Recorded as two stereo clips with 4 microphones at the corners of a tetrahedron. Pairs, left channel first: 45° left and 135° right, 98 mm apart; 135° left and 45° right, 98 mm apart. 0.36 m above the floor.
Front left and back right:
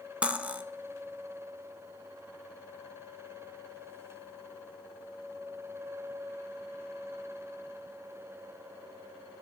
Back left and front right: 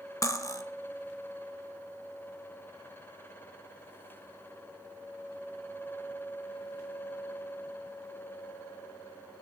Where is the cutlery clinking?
155° left, 0.5 m.